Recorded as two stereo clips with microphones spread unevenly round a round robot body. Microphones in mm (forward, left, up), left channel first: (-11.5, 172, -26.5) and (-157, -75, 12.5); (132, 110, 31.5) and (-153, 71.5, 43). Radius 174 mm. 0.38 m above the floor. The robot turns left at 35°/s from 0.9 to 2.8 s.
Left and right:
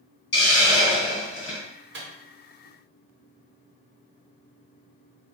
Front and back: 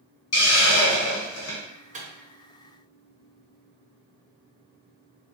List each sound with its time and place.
0.3 s a hiss: 15° left, 1.6 m; by 1.6 s 10° right, 1.6 m
1.9 s a microwave: 130° right, 0.7 m; by 2.1 s 135° right, 0.7 m